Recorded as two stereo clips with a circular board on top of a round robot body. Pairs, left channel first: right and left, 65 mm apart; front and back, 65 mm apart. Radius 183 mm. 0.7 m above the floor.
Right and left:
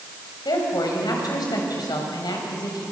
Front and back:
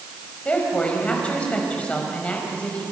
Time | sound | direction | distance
0.5 | a woman speaking | 70° right | 5.5 m